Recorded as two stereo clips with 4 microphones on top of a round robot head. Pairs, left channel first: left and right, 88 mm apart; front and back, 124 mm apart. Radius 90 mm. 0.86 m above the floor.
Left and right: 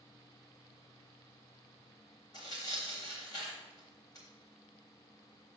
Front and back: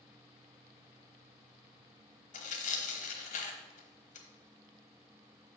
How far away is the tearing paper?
About 1.0 m.